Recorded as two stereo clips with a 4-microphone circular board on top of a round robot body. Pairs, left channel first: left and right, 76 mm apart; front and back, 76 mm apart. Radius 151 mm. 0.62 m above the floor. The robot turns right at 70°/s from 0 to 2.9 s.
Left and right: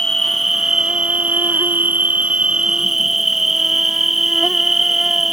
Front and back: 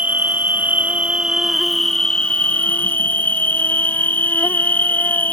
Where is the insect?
150° left; by 5.3 s 5° right.